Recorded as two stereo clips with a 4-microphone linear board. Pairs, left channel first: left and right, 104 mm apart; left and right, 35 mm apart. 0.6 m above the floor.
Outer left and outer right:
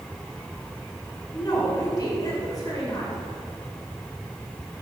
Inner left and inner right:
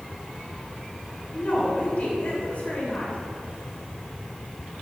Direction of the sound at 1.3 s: 35° left (ahead or behind).